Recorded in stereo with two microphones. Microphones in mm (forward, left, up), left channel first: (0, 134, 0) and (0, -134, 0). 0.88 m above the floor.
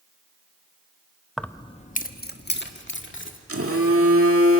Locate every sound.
1.4 s keys jangling: centre (ahead or behind), 0.6 m; by 3.4 s 50° left (ahead or behind), 2 m
3.5 s a phone buzzing: 60° right (ahead or behind), 1.8 m